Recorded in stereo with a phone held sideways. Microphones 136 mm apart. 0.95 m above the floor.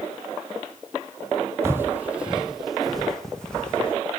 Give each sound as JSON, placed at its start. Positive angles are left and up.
{"t": 1.6, "sound": "footsteps", "side_deg": -20, "distance_m": 1.6}